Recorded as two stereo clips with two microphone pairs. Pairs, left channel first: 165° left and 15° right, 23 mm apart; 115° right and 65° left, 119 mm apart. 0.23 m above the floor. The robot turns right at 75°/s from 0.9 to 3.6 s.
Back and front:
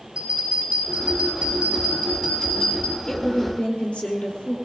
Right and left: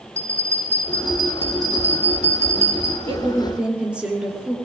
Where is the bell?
45° right, 8.5 m; by 3.0 s 110° left, 8.5 m.